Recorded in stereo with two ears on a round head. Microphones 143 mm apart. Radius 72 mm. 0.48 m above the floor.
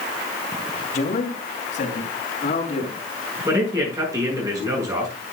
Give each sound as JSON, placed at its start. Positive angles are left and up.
{"t": 0.9, "sound": "a man speaking", "side_deg": 50, "distance_m": 3.0}
{"t": 3.5, "sound": "a man speaking", "side_deg": -20, "distance_m": 6.5}